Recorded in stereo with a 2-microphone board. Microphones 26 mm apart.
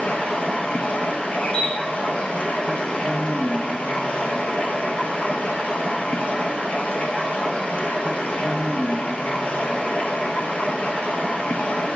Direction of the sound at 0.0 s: 55° left (ahead or behind).